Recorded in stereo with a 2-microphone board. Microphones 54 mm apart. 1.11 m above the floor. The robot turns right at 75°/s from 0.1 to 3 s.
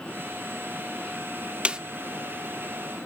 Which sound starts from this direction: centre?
A snare drum, at 1.6 s.